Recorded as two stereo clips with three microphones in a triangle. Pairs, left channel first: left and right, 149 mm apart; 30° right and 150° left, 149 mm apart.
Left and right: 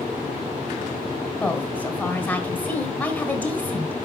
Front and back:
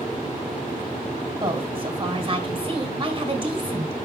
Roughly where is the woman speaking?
Behind.